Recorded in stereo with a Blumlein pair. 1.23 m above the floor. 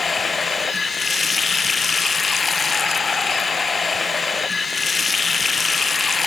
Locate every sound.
0.0 s running water: 15° left, 0.7 m